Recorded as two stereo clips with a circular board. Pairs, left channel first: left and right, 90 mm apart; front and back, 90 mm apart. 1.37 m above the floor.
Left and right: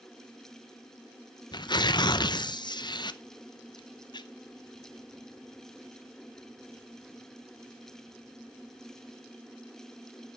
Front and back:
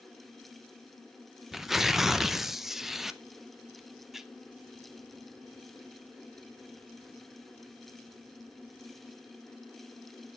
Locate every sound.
1.5 s tearing paper: 95° left, 0.6 m